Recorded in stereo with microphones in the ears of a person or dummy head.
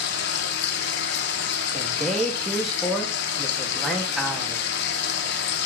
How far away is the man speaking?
About 2.5 m.